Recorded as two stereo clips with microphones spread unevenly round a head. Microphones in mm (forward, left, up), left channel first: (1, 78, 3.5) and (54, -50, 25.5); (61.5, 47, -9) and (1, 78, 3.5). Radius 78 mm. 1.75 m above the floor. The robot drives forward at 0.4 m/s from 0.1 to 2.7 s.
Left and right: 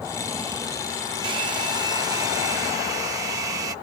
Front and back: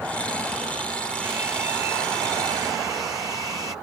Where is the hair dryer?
130° right; by 3.8 s 140° right.